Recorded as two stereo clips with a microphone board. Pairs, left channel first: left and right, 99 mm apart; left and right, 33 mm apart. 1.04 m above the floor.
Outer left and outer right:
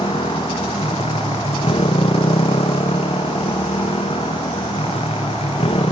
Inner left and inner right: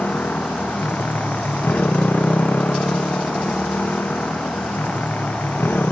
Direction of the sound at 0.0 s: 75° left (ahead or behind).